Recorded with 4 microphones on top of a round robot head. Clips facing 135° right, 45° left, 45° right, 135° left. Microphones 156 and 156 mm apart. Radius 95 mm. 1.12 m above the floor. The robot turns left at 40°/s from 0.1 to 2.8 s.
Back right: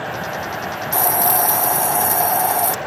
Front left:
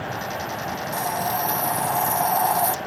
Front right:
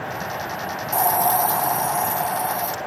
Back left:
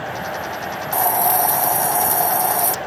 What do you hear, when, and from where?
0.9 s a hiss: 135° right; by 2.8 s 155° left